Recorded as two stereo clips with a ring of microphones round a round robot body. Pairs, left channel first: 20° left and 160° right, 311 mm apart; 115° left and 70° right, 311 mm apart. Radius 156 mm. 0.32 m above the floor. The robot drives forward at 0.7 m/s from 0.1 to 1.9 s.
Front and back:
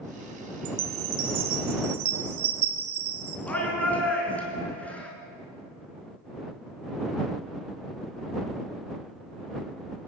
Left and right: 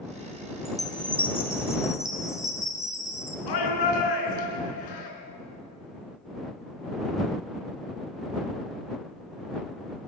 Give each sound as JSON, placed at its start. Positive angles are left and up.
{"t": 0.7, "sound": "a chime", "azimuth_deg": -155, "distance_m": 1.2}
{"t": 3.5, "sound": "a shout", "azimuth_deg": 110, "distance_m": 5.0}